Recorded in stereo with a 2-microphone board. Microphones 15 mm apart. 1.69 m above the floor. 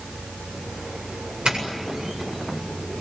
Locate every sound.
1.4 s a doorbell: 60° right (ahead or behind), 8 m